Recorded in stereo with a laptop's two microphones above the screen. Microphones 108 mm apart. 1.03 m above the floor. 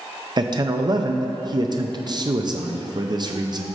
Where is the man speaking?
40° right (ahead or behind), 0.6 m.